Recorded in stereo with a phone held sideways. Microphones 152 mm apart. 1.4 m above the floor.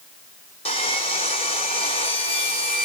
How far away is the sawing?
About 4 m.